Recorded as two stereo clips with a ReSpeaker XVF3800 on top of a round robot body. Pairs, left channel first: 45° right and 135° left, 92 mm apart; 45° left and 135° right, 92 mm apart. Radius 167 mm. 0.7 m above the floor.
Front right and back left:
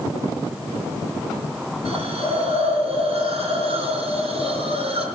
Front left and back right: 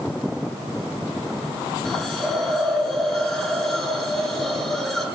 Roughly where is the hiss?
Behind left.